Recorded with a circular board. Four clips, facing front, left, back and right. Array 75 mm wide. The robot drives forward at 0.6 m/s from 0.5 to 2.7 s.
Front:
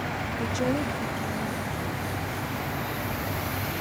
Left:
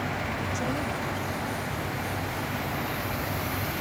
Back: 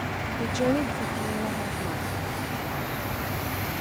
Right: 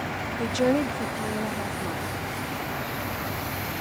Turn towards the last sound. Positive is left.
turn(degrees=-145)